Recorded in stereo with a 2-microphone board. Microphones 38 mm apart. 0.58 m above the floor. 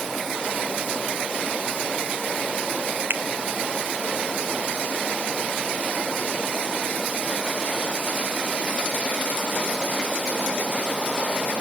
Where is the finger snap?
70° right (ahead or behind), 1.3 m.